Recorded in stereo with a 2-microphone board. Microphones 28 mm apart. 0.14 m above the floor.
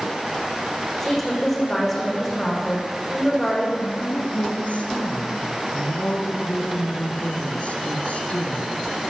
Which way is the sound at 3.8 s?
55° left (ahead or behind).